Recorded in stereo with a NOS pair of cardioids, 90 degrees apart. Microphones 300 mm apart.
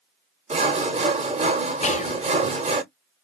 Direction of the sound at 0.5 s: 20° right.